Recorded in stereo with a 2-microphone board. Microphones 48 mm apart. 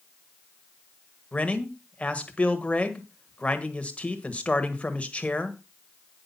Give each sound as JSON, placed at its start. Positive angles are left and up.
{"t": 1.3, "sound": "a man speaking", "side_deg": 25, "distance_m": 1.5}